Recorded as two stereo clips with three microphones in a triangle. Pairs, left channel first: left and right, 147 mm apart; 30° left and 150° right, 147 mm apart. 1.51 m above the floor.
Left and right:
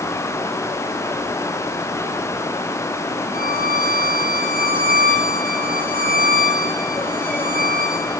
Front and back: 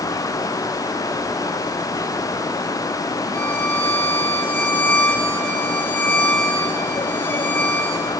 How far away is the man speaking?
No man speaking in this recording.